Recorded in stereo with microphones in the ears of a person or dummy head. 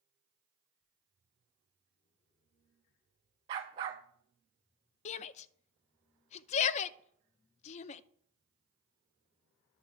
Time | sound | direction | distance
3.5 | a dog barking | 20° right (ahead or behind) | 0.8 m
5.0 | a shout | 40° left (ahead or behind) | 0.5 m